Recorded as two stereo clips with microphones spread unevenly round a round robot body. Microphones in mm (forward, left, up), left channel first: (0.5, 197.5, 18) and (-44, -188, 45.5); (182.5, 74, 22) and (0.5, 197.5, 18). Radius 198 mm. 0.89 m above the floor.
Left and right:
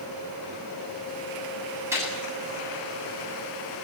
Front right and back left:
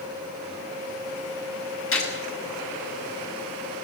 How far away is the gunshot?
About 7.5 m.